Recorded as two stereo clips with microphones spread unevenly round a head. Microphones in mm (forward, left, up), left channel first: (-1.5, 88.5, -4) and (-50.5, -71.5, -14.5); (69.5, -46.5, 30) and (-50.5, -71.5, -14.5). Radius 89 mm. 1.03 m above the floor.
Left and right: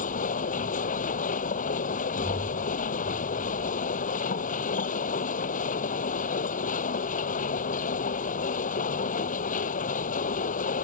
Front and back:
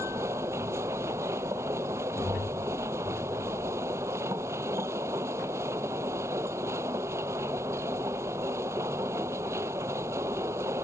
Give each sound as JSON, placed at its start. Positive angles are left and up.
{"t": 0.0, "sound": "a machine running", "azimuth_deg": 115}